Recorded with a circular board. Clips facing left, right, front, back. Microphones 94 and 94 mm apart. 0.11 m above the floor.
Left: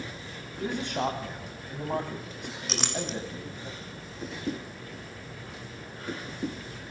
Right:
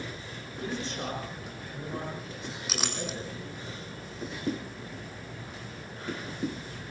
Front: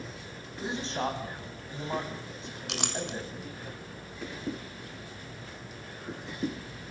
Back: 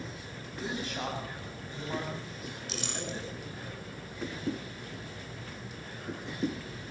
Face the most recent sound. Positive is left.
turn(degrees=-5)